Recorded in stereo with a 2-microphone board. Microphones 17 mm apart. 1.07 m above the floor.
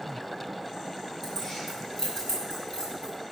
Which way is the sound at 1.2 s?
20° left (ahead or behind).